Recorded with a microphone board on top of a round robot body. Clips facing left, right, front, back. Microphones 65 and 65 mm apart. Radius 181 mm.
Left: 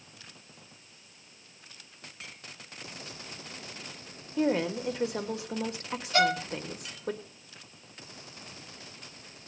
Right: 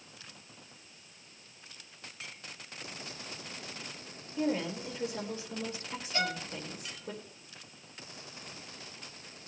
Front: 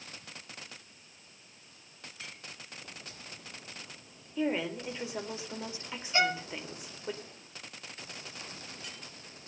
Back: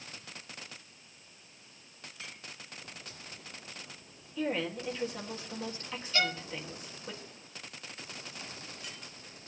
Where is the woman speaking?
75° left, 4 m.